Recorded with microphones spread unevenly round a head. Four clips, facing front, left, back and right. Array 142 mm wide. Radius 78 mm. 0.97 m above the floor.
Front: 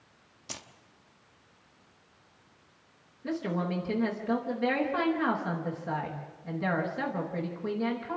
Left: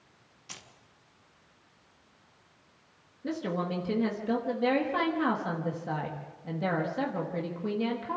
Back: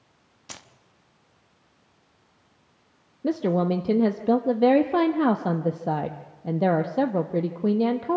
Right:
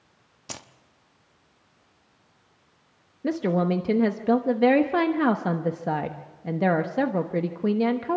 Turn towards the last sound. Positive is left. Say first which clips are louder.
# right 8 dB, back 9 dB
turn(degrees=-145)